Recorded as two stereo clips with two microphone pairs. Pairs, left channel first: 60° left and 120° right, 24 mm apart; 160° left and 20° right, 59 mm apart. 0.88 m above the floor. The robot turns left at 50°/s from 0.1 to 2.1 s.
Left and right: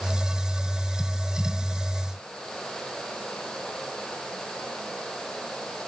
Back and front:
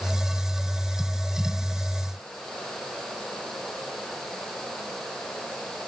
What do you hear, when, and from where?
Only background noise.